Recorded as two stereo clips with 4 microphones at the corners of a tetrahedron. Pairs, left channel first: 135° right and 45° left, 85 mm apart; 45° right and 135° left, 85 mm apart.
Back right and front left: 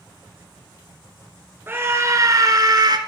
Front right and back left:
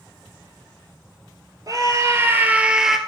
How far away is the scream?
About 2.5 m.